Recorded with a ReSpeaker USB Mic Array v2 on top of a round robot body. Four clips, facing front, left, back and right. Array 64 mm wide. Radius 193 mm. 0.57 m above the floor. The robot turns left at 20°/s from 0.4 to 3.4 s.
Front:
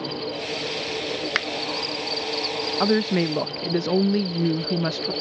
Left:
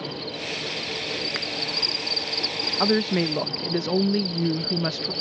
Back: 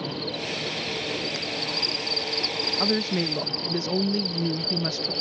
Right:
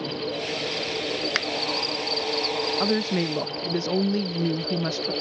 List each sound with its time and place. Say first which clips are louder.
0.0 s an insect: right 4 dB, front 2 dB; straight behind; by 5.2 s 120° left
1.4 s a finger snap: right 5 dB, front 8 dB; 20° right; by 1.5 s 25° right
2.8 s a woman speaking: left 5 dB, front 5 dB; 35° left; by 5.1 s 25° left